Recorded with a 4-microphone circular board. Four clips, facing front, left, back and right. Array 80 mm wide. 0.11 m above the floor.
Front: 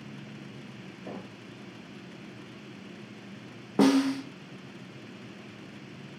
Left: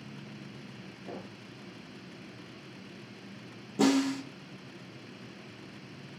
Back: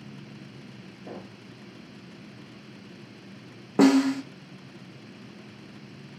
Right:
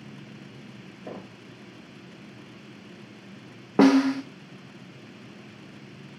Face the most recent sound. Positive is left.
turn(degrees=-100)